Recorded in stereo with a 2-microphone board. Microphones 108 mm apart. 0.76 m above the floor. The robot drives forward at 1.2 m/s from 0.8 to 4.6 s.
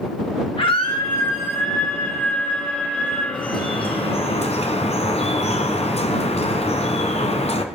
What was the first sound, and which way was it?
A scream, 55° left (ahead or behind).